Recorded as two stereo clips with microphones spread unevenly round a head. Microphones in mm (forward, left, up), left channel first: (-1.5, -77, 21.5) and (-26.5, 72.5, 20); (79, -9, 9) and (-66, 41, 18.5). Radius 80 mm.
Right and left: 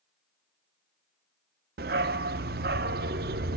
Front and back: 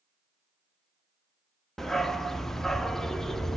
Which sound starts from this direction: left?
A dog barking, at 1.8 s.